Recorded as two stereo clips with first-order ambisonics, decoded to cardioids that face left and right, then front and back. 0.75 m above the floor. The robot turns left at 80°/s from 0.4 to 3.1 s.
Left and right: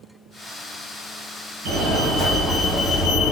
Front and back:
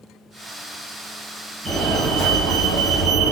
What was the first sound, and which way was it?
A fire alarm, 110° right.